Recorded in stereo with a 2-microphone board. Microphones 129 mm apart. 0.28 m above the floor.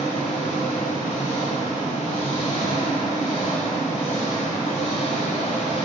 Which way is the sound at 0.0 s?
55° left (ahead or behind).